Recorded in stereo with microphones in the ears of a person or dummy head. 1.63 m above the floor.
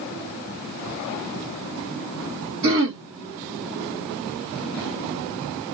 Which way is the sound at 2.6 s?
55° right (ahead or behind).